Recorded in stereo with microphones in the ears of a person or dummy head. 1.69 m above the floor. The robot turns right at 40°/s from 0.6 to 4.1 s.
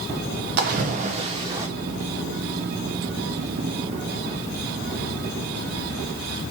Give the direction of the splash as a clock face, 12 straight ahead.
2 o'clock.